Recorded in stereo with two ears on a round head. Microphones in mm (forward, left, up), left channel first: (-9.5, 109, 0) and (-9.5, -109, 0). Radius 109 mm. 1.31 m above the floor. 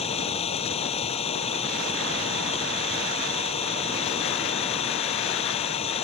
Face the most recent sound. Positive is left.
turn(degrees=25)  # may be behind; listen again after turning